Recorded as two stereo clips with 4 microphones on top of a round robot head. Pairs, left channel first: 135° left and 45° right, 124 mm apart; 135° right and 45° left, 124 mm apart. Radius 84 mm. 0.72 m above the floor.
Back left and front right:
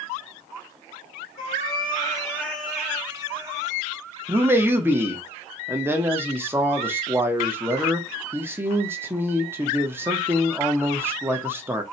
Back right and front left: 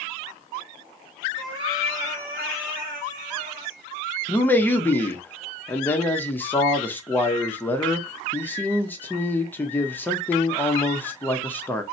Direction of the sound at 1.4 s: 105° left.